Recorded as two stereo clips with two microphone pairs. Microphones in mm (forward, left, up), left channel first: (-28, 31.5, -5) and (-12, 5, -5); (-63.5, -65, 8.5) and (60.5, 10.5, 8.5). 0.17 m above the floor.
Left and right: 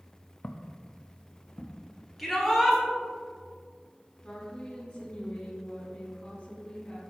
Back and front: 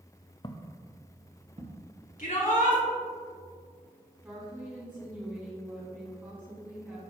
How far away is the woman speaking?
About 1.5 m.